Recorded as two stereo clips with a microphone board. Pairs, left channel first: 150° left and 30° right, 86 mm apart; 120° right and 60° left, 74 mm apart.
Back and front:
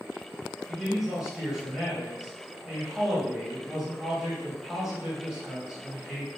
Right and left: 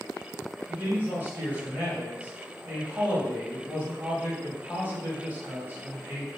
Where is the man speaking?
45° left, 1.0 m.